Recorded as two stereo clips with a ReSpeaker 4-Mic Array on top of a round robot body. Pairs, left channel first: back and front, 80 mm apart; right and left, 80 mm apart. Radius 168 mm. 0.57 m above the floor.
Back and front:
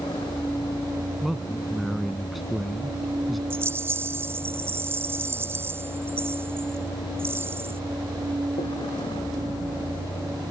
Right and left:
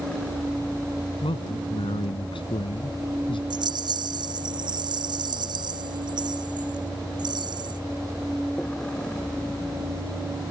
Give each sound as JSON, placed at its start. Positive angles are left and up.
{"t": 0.0, "sound": "a vehicle", "azimuth_deg": -170}
{"t": 1.2, "sound": "a man speaking", "azimuth_deg": -90}
{"t": 3.5, "sound": "a rattle", "azimuth_deg": 60}